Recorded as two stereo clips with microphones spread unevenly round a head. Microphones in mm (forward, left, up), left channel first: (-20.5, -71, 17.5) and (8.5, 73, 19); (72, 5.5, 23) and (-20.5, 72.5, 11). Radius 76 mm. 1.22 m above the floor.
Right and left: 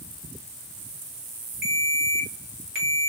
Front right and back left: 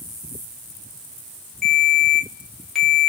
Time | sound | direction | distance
1.6 | a ringtone | 55° left | 1.3 m